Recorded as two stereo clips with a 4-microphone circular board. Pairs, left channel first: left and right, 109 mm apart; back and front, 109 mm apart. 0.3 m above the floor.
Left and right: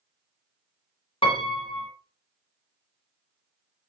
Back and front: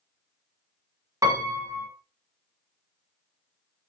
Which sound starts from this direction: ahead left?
A piano, at 1.2 s.